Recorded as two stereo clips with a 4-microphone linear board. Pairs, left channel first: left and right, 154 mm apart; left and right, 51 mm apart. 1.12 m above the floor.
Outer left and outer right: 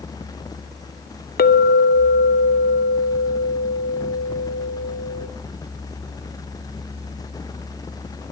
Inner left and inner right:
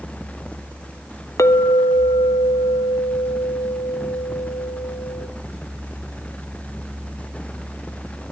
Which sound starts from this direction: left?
A clink, at 1.4 s.